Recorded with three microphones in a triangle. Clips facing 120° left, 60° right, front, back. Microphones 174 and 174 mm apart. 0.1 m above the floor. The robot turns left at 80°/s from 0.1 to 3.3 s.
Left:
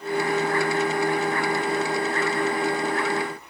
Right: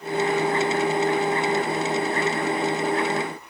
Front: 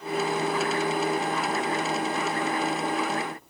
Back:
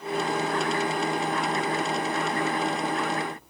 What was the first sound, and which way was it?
Only background noise.